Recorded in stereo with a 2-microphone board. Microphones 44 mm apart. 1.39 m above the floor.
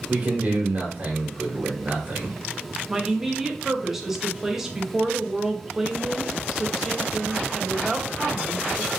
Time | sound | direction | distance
0.1 | a man speaking | 35° right (ahead or behind) | 1.7 m
2.9 | a woman speaking | 10° right (ahead or behind) | 0.7 m